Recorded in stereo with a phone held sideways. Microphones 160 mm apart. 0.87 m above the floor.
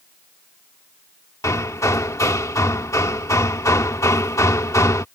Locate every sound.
1.4 s hammering: 20° left (ahead or behind)